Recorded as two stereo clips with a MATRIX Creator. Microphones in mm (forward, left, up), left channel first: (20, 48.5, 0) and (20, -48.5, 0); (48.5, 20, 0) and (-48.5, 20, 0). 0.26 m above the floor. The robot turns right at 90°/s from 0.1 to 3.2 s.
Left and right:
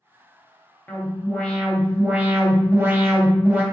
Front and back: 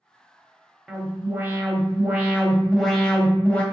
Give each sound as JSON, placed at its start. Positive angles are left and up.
{"t": 0.9, "sound": "an alarm", "azimuth_deg": 95, "distance_m": 0.8}